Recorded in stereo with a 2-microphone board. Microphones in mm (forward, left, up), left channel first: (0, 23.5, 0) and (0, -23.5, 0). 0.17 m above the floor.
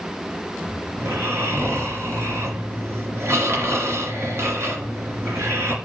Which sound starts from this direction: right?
Snoring, at 1.0 s.